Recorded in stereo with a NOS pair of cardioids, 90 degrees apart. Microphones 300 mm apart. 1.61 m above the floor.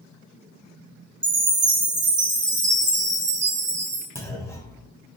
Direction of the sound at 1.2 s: 35° right.